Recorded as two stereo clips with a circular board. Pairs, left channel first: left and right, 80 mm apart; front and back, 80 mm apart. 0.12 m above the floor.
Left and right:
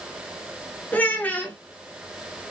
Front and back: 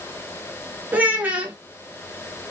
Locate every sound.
0.9 s a child speaking: 140° left, 0.7 m